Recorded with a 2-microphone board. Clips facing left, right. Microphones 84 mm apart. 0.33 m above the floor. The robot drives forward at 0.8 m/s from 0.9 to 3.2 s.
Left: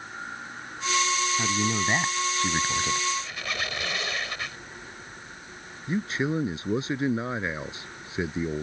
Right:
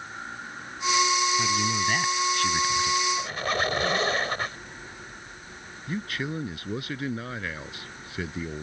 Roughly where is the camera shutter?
I don't hear a camera shutter.